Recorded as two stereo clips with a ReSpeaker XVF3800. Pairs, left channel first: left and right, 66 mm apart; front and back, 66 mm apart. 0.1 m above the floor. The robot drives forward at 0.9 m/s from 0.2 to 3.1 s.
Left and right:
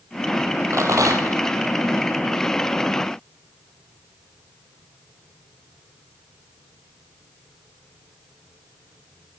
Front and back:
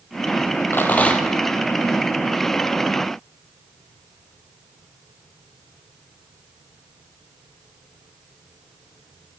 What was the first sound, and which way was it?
A rattle, 55° right.